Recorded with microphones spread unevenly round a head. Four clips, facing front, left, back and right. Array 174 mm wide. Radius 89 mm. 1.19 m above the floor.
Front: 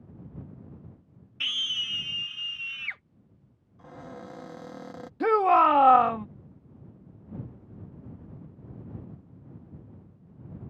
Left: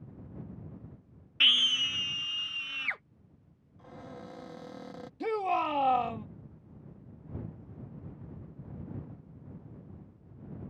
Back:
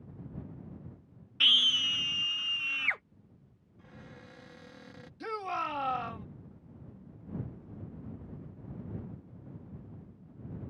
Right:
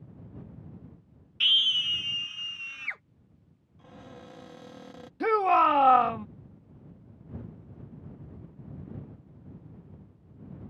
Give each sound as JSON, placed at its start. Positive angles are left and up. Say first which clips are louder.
{"t": 1.4, "sound": "a scream", "louder": "even, back 5 dB", "azimuth_deg": 120}
{"t": 3.8, "sound": "a cupboard door", "louder": "left 2 dB, front 10 dB", "azimuth_deg": 10}
{"t": 5.2, "sound": "a shout", "louder": "right 8 dB, front 16 dB", "azimuth_deg": -20}